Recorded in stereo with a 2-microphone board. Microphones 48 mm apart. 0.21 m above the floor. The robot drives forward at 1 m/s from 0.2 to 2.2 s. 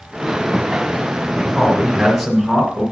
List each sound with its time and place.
1.6 s a man speaking: 5° right (ahead or behind), 2 m